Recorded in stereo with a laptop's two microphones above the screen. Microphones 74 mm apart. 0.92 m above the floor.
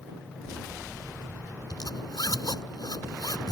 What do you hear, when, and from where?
1.7 s a zipper: 60° left (ahead or behind)